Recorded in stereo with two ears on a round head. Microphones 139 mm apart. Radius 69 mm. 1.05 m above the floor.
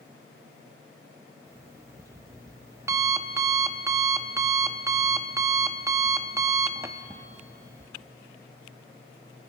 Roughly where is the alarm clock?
Centre.